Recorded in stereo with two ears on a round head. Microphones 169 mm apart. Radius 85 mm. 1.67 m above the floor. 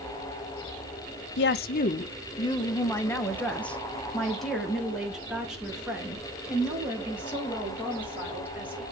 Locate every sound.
1.4 s a woman speaking: 65° left (ahead or behind), 0.6 m; by 8.8 s 10° right (ahead or behind), 4 m